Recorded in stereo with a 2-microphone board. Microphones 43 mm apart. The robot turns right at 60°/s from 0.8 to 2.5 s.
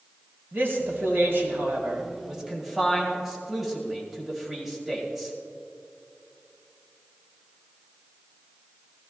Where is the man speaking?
105° right, 1.9 m; by 5.3 s 5° right, 1.9 m.